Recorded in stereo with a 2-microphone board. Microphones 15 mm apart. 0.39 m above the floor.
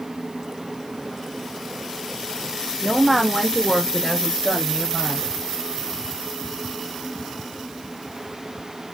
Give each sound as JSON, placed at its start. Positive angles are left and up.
{"t": 2.8, "sound": "a woman speaking", "side_deg": 5, "distance_m": 1.4}